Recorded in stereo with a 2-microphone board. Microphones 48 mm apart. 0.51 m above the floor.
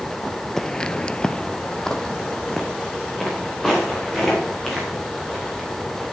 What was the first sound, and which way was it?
Footsteps, 10° left (ahead or behind).